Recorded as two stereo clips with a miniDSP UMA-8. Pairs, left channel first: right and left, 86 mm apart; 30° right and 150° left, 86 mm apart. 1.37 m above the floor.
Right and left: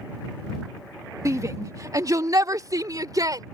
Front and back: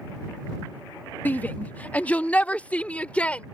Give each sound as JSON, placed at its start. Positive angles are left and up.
{"t": 1.2, "sound": "a shout", "azimuth_deg": 40}